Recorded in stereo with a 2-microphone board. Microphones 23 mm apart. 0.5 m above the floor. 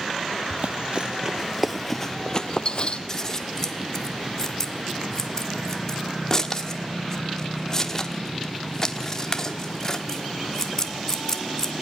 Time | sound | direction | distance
0.5 | running footsteps | 60° right (ahead or behind) | 1.1 m
3.1 | scissors | 20° left (ahead or behind) | 1.3 m